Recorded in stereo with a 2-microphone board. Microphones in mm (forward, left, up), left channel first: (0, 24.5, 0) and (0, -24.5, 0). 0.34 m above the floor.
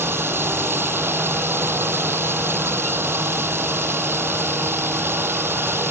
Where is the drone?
50° right (ahead or behind).